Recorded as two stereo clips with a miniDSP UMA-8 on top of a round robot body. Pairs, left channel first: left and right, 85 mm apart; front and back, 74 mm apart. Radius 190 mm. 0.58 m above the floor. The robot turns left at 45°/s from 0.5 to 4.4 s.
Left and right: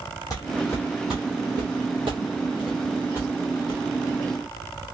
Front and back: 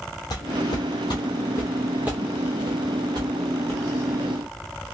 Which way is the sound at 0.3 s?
35° left.